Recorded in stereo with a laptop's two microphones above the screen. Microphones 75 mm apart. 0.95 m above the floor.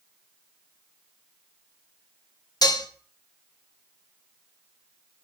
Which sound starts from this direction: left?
Dishes clattering, at 2.6 s.